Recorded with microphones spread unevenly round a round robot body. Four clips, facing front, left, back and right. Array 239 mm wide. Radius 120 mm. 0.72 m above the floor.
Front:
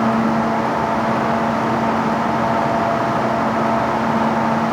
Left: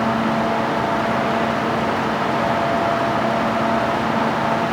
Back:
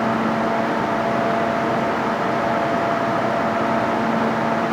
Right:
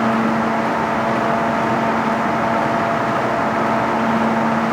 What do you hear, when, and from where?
Only background noise.